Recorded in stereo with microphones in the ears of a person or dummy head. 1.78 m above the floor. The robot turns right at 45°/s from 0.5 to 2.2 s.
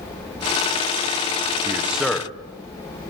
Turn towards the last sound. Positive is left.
turn(degrees=5)  # may be behind; listen again after turning